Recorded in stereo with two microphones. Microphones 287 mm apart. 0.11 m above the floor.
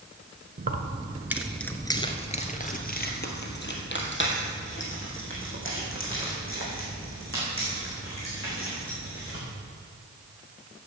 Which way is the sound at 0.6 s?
35° right (ahead or behind).